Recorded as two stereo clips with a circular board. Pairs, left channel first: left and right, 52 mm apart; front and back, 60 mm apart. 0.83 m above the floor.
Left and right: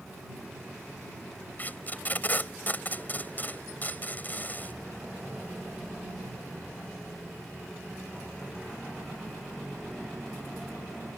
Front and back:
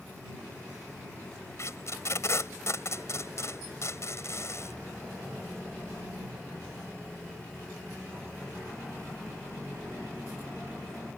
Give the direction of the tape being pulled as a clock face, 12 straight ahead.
11 o'clock.